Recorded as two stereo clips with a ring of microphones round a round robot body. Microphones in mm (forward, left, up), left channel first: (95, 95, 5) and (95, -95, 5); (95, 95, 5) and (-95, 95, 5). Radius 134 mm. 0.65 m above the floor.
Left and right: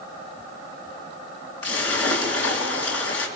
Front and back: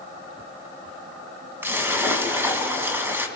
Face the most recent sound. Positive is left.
turn(degrees=100)